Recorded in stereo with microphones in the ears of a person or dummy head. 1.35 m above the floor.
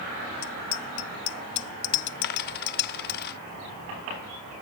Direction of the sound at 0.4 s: 85° left.